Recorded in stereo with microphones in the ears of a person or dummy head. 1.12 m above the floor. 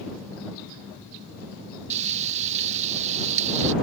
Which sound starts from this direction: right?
Frying, at 1.9 s.